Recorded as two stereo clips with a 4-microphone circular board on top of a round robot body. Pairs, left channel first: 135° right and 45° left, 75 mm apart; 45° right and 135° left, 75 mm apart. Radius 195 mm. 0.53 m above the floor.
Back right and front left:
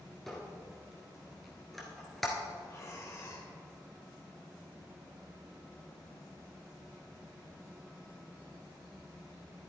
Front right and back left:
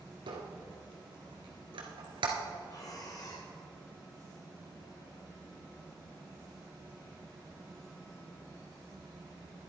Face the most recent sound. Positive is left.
turn(degrees=-85)